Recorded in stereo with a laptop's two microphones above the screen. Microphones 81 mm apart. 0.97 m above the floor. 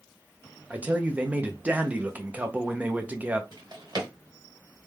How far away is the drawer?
About 1.4 m.